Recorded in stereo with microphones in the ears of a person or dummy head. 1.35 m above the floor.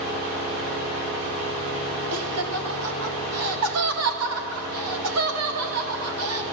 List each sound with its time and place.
2.1 s laughter: 85° right, 2.0 m